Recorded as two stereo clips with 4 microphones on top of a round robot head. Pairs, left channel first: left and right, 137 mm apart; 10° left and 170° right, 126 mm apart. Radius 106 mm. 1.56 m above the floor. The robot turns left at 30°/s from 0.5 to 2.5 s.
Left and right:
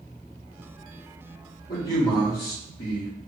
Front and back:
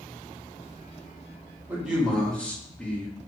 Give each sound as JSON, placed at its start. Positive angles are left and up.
{"t": 1.7, "sound": "a man speaking", "azimuth_deg": 110, "distance_m": 1.1}